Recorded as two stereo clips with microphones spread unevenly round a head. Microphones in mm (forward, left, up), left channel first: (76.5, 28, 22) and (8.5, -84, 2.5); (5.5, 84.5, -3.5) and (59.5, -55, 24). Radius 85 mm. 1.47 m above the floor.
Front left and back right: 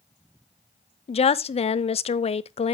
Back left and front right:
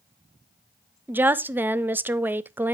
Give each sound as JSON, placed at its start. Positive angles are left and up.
{"t": 1.1, "sound": "a woman speaking", "azimuth_deg": 10, "distance_m": 0.5}